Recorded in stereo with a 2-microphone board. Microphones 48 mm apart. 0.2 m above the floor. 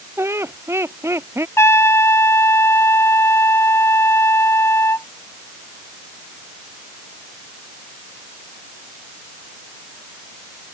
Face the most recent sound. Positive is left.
turn(degrees=65)  # may be behind; listen again after turning